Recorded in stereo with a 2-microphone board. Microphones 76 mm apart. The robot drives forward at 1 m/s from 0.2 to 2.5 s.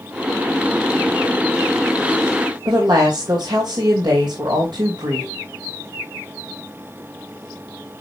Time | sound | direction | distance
2.6 | a woman speaking | 75° right (ahead or behind) | 3 m